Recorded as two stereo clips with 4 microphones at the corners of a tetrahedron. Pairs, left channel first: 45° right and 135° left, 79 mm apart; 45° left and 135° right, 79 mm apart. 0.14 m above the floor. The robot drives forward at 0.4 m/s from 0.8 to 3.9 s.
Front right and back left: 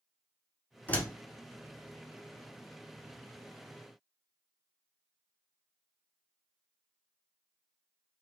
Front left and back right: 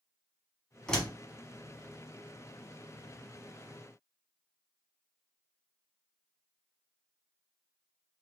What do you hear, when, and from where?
0.9 s a door slam: 20° right, 1.2 m; by 1.1 s 25° right, 1.2 m